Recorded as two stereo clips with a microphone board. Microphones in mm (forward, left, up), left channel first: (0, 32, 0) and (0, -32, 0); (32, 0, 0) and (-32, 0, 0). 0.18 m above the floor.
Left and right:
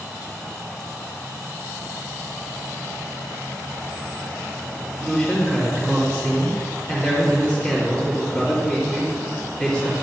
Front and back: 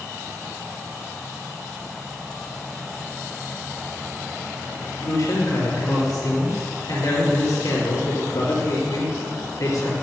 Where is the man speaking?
20° left, 2.5 m.